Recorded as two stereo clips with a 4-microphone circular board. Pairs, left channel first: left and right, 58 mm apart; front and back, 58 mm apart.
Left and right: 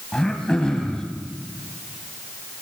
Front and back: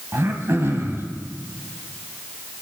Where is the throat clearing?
160° left, 1.8 m.